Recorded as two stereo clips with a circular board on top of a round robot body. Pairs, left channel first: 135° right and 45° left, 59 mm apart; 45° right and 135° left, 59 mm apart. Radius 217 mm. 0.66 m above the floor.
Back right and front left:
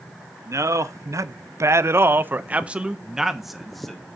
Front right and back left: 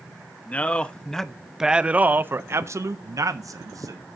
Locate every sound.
0.5 s a man speaking: 20° left, 1.3 m; by 4.1 s 140° left, 1.5 m